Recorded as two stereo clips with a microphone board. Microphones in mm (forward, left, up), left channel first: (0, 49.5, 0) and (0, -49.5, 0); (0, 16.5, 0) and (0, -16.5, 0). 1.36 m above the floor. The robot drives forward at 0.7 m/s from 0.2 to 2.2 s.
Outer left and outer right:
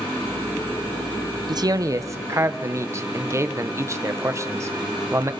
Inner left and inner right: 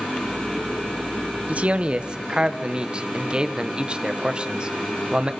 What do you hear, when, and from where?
1.5 s a man speaking: 45° right (ahead or behind), 0.8 m; by 5.3 s 30° right (ahead or behind), 1.1 m